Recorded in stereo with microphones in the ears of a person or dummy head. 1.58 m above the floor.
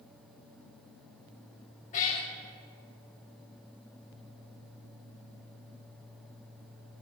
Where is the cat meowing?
40° left (ahead or behind), 1.6 m.